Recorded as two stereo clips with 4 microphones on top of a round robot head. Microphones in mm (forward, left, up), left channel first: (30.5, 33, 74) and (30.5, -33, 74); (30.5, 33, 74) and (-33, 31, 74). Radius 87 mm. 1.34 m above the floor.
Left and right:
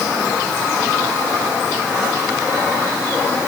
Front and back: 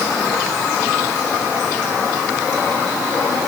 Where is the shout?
No shout in this recording.